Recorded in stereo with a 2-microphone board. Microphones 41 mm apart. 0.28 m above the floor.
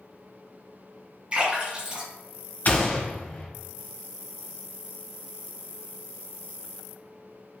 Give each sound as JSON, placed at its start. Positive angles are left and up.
{"t": 1.3, "sound": "a splash", "side_deg": -25, "distance_m": 2.0}
{"t": 2.6, "sound": "a gunshot", "side_deg": 45, "distance_m": 0.6}